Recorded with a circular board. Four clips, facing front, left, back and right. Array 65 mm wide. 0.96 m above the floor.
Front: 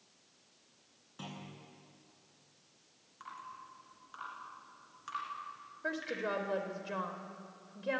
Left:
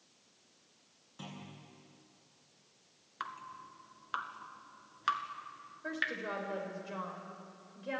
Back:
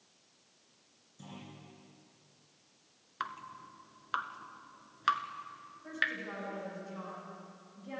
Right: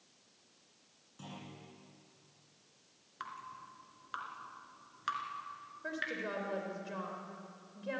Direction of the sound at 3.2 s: 160° left.